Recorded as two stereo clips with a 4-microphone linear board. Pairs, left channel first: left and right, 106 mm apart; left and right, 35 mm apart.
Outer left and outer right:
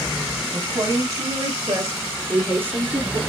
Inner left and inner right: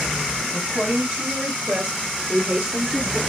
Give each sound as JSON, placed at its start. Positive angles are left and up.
{"t": 0.5, "sound": "a woman speaking", "side_deg": -35, "distance_m": 4.5}